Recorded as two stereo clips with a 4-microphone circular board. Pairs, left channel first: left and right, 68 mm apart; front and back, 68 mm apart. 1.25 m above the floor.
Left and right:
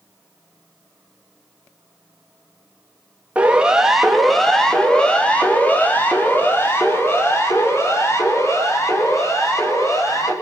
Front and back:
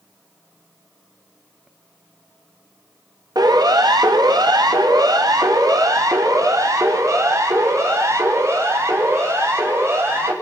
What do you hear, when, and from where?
3.4 s a siren: 160° right, 2.5 m; by 10.3 s 130° left, 7.5 m